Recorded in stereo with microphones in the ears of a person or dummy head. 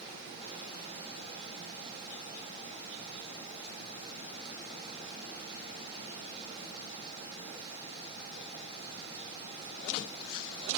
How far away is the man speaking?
I don't hear a man speaking.